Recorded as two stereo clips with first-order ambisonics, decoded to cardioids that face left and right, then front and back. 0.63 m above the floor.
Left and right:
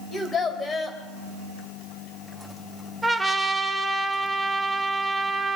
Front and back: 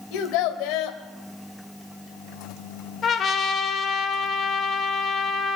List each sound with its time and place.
0.1 s a child speaking: 15° left, 2.0 m
3.0 s a trumpet: 15° right, 0.9 m